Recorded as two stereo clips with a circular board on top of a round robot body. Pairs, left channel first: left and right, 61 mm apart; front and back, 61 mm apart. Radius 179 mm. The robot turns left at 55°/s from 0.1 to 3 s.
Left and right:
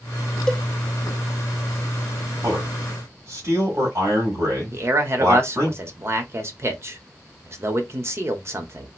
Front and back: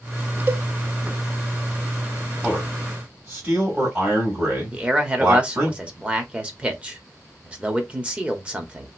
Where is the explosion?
I don't hear an explosion.